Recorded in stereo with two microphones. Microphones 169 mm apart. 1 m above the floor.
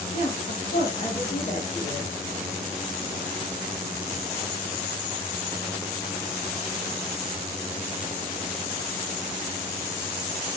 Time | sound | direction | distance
0.1 | a woman speaking | 50° left (ahead or behind) | 0.8 m